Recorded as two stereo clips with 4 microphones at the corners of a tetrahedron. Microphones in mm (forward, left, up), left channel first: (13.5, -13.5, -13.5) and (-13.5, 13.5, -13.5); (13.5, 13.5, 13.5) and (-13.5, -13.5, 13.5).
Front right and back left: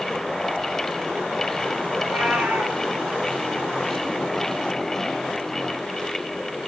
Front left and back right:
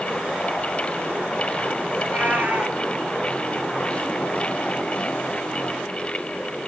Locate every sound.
2.0 s a cat meowing: 175° left, 3.5 m